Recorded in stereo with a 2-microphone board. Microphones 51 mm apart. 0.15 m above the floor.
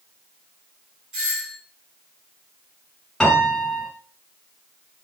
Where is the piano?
10° left (ahead or behind), 1.8 m.